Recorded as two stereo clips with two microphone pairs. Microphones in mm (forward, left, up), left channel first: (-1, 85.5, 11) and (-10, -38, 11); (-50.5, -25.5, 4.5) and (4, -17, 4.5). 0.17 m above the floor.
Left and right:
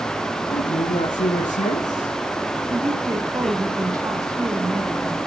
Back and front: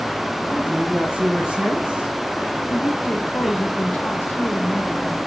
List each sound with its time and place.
0.5 s a man speaking: 85° left, 5 m
2.7 s a woman speaking: 145° right, 1.9 m